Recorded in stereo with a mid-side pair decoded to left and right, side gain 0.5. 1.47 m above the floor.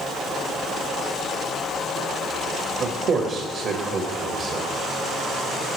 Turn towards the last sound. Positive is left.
turn(degrees=-60)